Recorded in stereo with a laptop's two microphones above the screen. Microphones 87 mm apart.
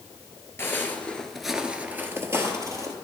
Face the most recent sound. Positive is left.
turn(degrees=-40)  # may be behind; listen again after turning